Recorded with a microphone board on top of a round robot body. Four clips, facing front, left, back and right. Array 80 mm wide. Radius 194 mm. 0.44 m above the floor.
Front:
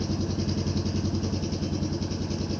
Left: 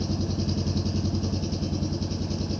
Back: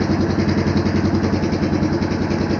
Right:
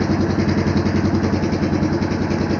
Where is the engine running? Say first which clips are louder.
Right 11 dB, back 12 dB; 130° right.